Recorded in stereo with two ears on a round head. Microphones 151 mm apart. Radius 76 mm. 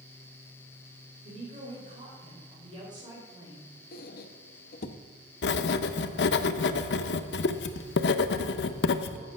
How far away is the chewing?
I don't hear chewing.